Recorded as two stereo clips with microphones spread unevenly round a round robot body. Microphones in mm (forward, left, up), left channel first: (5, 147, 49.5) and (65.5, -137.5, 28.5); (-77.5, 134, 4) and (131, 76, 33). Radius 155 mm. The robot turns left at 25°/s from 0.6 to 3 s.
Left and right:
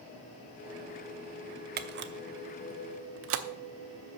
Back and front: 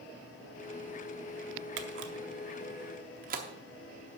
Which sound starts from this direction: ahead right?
A camera shutter, at 1.8 s.